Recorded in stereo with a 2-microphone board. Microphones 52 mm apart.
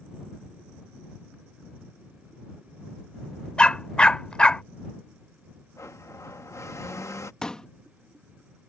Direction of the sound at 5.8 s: 70° left (ahead or behind).